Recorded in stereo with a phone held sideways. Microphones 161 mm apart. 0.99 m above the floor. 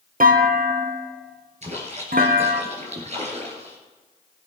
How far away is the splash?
About 3.5 m.